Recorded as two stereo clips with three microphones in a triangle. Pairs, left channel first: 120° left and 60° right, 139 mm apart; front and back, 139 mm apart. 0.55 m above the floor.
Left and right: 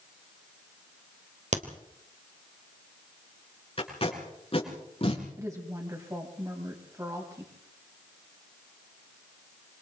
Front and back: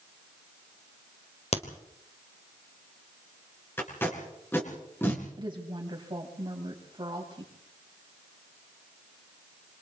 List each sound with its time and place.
1.5 s a crack: 35° right, 2.5 m
3.8 s tape being pulled: 75° left, 6 m
5.4 s a woman speaking: 125° right, 3.5 m